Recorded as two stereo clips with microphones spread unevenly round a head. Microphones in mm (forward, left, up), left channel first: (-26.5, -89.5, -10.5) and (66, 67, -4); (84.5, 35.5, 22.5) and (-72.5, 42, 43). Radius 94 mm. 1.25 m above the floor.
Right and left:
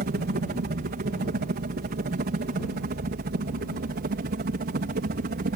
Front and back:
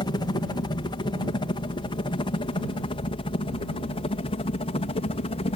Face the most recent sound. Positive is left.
turn(degrees=35)